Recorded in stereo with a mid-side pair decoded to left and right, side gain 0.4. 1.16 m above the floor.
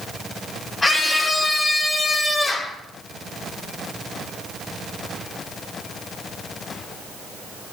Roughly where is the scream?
Ahead left.